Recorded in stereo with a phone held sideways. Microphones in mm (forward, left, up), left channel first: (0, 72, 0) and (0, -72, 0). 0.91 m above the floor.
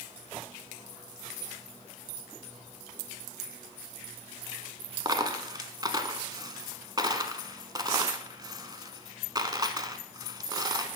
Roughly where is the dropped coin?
Right.